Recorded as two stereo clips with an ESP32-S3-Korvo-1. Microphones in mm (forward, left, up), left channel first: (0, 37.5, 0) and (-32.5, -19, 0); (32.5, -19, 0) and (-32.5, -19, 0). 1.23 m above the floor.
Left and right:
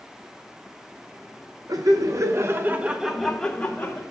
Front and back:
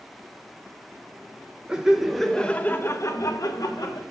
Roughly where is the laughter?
Right.